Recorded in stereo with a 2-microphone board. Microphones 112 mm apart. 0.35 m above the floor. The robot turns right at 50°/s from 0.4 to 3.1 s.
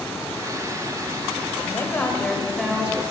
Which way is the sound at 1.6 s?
135° left.